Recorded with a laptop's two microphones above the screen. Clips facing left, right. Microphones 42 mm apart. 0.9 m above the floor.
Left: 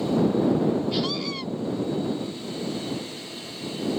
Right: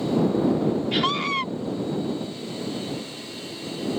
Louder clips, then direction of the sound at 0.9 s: Right 4 dB; 60° right (ahead or behind).